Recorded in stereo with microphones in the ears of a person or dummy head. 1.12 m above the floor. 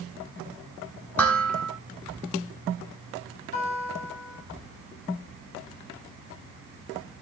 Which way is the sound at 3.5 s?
50° left (ahead or behind).